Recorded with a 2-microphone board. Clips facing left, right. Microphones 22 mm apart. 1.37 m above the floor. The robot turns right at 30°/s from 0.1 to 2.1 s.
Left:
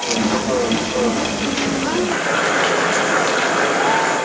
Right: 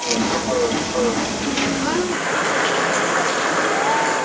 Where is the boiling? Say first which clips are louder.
Left 2 dB; 65° left (ahead or behind), 8.5 m.